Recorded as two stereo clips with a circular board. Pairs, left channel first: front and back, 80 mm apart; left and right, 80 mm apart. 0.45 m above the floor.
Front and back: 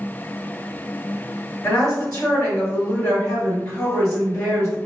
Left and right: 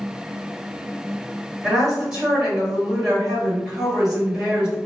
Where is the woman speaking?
15° right, 1.6 m.